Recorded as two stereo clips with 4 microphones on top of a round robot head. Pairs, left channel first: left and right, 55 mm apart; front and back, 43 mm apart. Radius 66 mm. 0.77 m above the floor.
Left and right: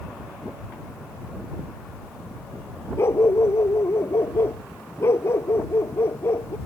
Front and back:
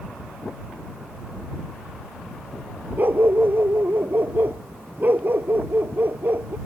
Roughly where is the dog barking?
Behind left.